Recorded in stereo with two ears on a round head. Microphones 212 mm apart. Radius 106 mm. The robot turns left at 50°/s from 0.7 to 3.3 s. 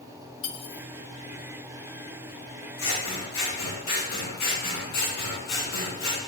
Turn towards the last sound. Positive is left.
turn(degrees=85)